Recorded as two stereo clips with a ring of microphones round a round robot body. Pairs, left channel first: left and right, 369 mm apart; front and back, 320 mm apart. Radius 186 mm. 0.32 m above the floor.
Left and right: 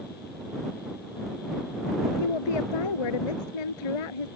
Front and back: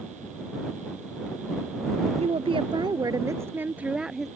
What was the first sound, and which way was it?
A woman speaking, 110° left.